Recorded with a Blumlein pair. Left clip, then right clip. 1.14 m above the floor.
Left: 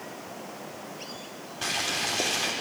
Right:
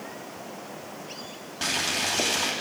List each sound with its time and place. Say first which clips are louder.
1.6 s boiling: right 2 dB; 60° right, 2.5 m